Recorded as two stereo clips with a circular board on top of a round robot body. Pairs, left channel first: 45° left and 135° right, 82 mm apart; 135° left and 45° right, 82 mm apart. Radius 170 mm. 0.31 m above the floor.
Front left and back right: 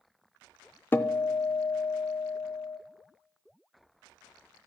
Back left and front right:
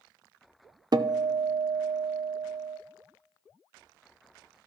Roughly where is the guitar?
Ahead.